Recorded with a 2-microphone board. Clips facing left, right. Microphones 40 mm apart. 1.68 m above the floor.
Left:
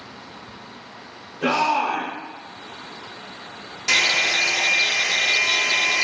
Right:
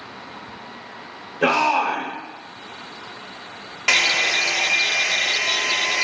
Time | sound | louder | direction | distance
1.4 | a shout | right 2 dB | 60° right (ahead or behind) | 1.0 m
3.9 | a hair dryer | right 1 dB | 50° right (ahead or behind) | 0.9 m